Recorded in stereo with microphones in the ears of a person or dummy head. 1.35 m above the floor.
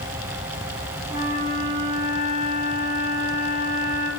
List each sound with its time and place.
1.1 s a flute: 50° left (ahead or behind), 6.5 m